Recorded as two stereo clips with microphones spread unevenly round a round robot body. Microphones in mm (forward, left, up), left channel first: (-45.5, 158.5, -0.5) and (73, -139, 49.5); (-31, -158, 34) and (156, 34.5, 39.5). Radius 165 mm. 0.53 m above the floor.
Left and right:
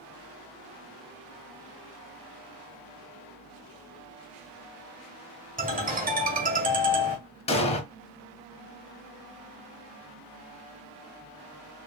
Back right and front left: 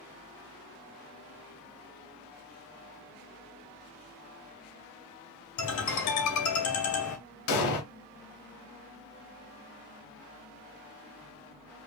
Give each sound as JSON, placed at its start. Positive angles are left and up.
{"t": 5.6, "sound": "a ringtone", "azimuth_deg": -135, "distance_m": 1.9}
{"t": 7.5, "sound": "an explosion", "azimuth_deg": -175, "distance_m": 0.8}